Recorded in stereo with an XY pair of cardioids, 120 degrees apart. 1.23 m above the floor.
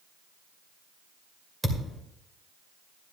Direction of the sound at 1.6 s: 10° right.